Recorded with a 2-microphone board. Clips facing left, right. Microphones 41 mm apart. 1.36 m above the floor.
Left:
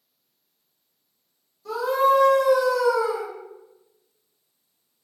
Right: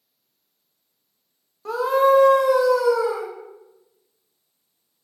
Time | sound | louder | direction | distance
1.6 | a scream | right 3 dB | 50° right (ahead or behind) | 0.9 m